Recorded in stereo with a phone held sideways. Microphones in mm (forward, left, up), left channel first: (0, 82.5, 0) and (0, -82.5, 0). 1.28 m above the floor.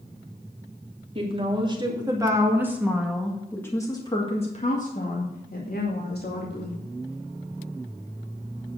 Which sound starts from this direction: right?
A woman speaking, at 1.1 s.